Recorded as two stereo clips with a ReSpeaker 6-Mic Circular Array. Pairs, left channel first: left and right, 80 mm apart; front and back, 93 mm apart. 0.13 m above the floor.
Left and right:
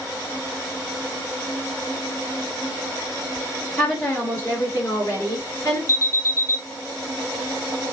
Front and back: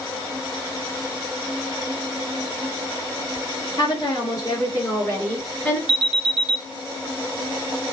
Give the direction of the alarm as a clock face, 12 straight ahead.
4 o'clock.